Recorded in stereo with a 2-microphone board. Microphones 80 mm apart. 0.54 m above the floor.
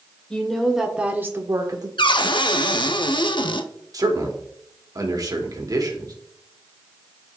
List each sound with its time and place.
0.3 s a woman speaking: 10° left (ahead or behind), 1.9 m; by 1.9 s 55° right (ahead or behind), 1.4 m
2.0 s a cupboard door: 85° left, 0.6 m
3.9 s a man speaking: 50° right (ahead or behind), 1.7 m